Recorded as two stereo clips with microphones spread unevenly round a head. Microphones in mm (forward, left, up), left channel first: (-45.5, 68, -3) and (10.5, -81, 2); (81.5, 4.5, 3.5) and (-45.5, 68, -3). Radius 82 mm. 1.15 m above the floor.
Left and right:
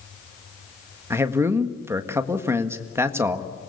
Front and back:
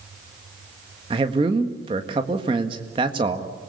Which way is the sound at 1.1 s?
145° right.